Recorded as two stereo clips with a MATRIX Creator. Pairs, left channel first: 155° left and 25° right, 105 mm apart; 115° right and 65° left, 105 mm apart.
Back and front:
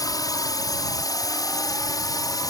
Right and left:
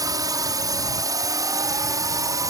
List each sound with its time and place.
0.0 s a drone: 110° left; by 2.5 s 115° left